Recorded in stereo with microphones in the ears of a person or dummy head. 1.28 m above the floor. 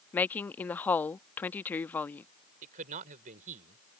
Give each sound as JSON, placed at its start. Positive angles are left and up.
{"t": 0.1, "sound": "a woman speaking", "side_deg": 5}
{"t": 2.6, "sound": "a man speaking", "side_deg": -40}